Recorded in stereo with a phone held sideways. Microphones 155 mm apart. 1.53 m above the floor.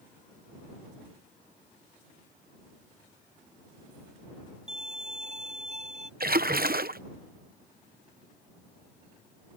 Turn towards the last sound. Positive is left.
turn(degrees=-75)  # may be behind; listen again after turning